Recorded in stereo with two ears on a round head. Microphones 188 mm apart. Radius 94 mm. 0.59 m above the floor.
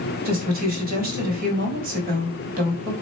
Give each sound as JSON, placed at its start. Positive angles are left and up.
{"t": 0.2, "sound": "a woman speaking", "side_deg": -40, "distance_m": 3.0}